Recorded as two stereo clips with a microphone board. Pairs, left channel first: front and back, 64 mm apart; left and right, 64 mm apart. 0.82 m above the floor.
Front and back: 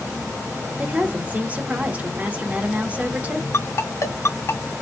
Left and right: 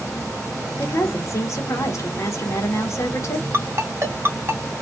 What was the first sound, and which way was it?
A woman speaking, 115° left.